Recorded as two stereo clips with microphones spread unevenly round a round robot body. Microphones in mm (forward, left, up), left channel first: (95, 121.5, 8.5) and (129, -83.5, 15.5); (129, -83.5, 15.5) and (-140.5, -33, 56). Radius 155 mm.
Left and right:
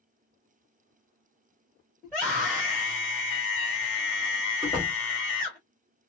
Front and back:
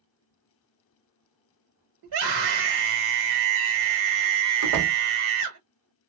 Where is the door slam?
175° left, 0.9 m.